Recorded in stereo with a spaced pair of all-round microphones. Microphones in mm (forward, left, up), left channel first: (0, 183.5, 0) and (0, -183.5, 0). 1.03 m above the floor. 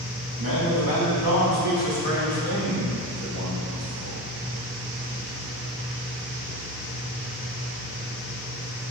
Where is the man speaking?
60° right (ahead or behind), 2.0 m; by 4.2 s 65° right (ahead or behind), 4 m.